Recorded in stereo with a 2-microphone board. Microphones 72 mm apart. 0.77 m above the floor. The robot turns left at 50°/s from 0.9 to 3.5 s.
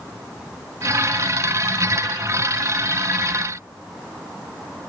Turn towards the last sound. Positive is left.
No sound to turn to.